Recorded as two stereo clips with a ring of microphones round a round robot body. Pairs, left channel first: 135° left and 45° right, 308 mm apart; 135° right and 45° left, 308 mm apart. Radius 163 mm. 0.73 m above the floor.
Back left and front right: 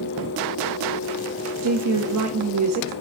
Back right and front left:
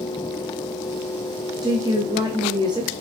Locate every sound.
1.6 s a woman speaking: 30° right, 0.8 m